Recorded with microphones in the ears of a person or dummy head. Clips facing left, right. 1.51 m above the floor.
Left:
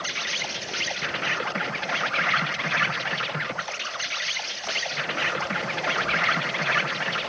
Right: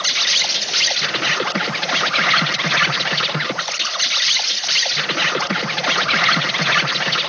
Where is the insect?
60° right (ahead or behind).